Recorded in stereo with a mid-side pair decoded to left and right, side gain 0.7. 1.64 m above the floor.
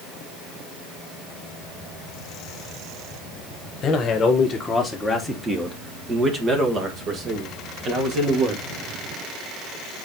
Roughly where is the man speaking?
Ahead left.